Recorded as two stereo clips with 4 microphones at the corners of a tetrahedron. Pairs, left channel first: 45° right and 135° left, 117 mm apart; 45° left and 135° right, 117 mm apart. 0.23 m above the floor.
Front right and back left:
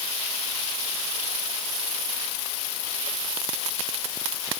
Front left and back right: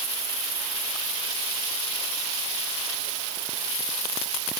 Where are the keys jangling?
I don't hear keys jangling.